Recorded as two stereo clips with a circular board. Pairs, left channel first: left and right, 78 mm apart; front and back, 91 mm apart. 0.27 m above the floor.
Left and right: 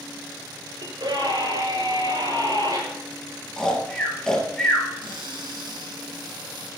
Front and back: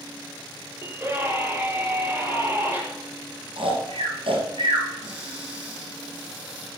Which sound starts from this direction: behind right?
A scream, at 0.8 s.